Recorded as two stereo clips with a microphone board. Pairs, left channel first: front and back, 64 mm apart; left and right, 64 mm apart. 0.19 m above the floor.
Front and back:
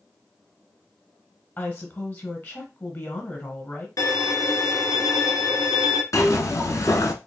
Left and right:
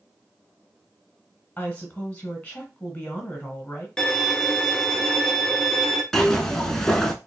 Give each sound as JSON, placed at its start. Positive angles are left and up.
{"t": 1.6, "sound": "a woman speaking", "azimuth_deg": 30, "distance_m": 1.7}
{"t": 4.0, "sound": "a violin", "azimuth_deg": 10, "distance_m": 0.7}
{"t": 6.1, "sound": "a zipper", "azimuth_deg": 10, "distance_m": 0.7}